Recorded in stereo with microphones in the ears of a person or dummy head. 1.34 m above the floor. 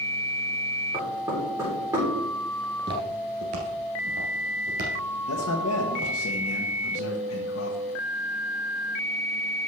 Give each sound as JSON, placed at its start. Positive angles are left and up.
{"t": 0.9, "sound": "knocking", "side_deg": -15, "distance_m": 3.5}
{"t": 2.6, "sound": "footsteps", "side_deg": -20, "distance_m": 1.4}
{"t": 5.3, "sound": "a man speaking", "side_deg": 80, "distance_m": 1.2}